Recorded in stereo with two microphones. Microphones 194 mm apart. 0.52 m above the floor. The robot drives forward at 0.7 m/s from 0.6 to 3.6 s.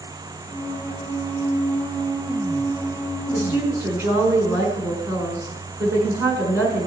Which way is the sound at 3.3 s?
10° right (ahead or behind).